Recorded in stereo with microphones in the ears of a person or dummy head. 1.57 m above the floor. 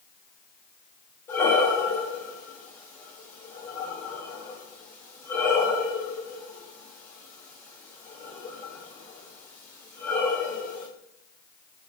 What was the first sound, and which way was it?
Breathing, 15° left (ahead or behind).